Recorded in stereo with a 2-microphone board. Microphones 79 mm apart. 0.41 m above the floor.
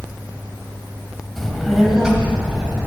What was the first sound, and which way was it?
A child speaking, 5° left (ahead or behind).